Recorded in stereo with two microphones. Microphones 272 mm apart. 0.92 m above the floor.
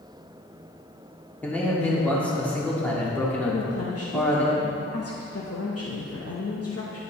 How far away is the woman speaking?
About 0.9 m.